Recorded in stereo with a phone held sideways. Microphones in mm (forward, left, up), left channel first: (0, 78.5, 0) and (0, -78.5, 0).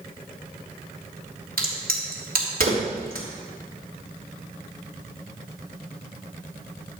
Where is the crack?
65° right (ahead or behind), 3 m.